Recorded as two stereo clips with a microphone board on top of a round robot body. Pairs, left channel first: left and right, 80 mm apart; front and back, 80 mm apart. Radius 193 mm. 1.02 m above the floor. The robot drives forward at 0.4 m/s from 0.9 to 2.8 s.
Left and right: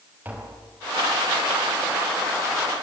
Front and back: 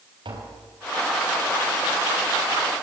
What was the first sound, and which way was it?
Tapping, 160° right.